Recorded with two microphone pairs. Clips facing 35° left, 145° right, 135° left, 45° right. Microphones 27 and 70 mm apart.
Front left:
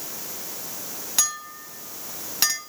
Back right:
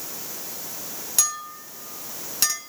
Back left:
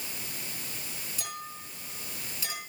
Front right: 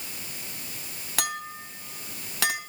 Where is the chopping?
No chopping in this recording.